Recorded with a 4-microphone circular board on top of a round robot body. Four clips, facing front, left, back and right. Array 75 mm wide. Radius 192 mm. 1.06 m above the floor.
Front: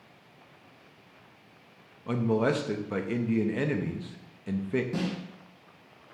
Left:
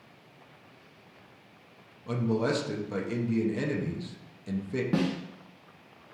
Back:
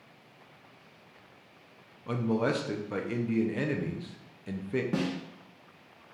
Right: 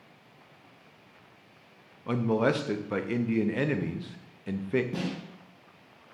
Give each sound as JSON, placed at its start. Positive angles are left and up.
{"t": 2.1, "sound": "a man speaking", "azimuth_deg": -80, "distance_m": 0.7}
{"t": 4.9, "sound": "a snare drum", "azimuth_deg": 120, "distance_m": 0.6}